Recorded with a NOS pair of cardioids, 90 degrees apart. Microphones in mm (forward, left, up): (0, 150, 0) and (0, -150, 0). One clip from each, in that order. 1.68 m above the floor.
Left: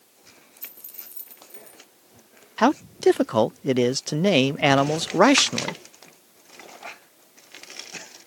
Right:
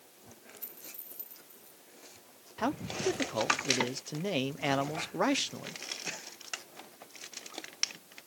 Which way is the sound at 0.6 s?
40° left.